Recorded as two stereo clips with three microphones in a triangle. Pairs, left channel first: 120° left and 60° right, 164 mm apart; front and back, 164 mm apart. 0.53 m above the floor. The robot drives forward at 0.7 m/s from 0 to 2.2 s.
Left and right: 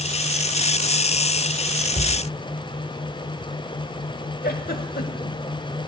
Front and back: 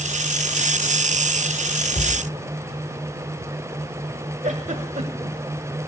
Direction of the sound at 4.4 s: 140° left.